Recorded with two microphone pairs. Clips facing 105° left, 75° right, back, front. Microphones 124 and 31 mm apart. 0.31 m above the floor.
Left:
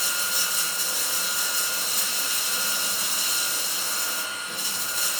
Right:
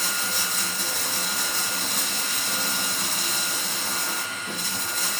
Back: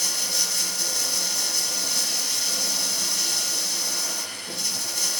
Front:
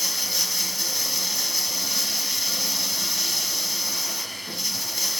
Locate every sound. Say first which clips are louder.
0.0 s running water: right 2 dB, even; 80° right, 1.5 m